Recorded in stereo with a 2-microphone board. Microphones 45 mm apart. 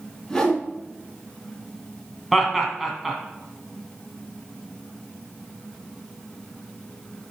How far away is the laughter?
About 2 m.